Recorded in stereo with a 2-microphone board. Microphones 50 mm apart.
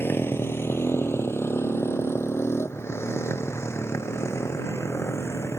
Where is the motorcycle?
50° left (ahead or behind); by 5.6 s 65° left (ahead or behind).